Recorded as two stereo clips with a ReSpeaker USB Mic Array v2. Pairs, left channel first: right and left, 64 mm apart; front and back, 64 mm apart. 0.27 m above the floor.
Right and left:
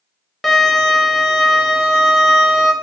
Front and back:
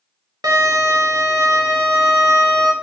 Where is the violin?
Straight behind, 0.6 m.